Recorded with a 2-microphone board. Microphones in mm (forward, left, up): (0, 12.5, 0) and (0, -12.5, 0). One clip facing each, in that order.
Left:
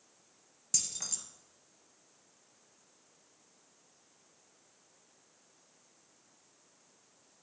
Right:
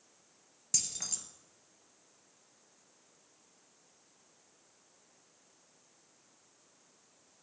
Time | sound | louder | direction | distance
0.7 | keys jangling | even | 10° right (ahead or behind) | 1.6 m